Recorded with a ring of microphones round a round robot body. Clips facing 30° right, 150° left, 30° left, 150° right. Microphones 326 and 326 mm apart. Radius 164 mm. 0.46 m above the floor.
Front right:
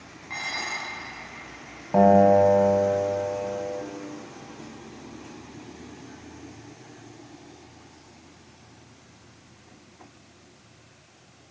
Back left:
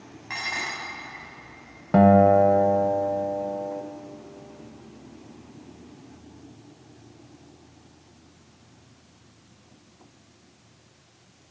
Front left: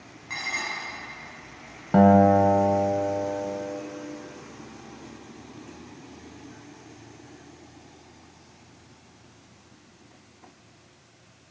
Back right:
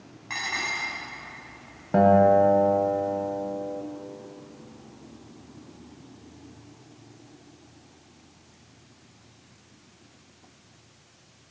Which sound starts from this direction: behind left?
Dishes clattering, at 0.3 s.